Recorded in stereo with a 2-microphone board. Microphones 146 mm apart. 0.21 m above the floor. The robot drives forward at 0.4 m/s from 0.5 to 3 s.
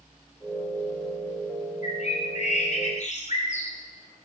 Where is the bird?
50° left (ahead or behind), 8 m; by 3.7 s 55° left (ahead or behind), 8 m.